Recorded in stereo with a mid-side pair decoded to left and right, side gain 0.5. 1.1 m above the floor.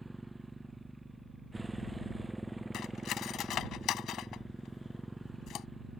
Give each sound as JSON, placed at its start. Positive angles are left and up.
{"t": 0.0, "sound": "a motorcycle", "azimuth_deg": -10}
{"t": 2.7, "sound": "cutlery clinking", "azimuth_deg": 65}